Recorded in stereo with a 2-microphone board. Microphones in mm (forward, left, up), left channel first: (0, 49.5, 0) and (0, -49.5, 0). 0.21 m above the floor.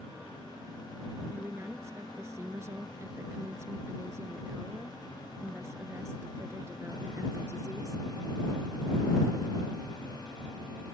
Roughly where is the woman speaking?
Right.